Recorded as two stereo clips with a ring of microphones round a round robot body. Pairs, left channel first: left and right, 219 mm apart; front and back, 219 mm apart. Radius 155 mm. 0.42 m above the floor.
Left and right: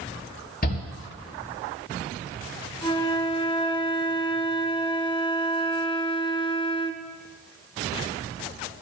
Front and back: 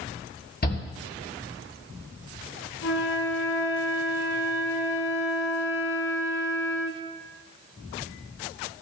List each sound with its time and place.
0.6 s a shout: 45° left, 7.5 m
2.8 s a flute: 25° left, 1.6 m